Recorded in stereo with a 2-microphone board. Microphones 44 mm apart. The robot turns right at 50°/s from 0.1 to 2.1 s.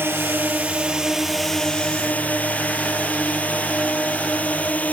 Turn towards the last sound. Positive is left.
turn(degrees=35)  # may be behind; listen again after turning